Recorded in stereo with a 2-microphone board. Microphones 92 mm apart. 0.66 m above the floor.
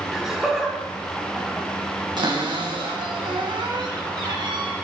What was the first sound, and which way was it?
Laughter, 5° right (ahead or behind).